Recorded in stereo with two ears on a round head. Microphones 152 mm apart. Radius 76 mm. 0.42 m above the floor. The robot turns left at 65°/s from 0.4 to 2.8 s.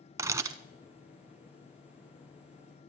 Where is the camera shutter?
20° right (ahead or behind), 0.6 m; by 0.6 s 30° right (ahead or behind), 0.6 m.